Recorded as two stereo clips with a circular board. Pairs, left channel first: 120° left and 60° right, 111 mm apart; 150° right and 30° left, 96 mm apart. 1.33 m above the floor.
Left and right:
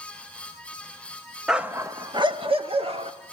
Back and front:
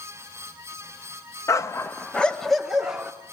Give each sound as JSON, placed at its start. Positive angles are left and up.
{"t": 1.5, "sound": "a dog barking", "azimuth_deg": -140, "distance_m": 0.8}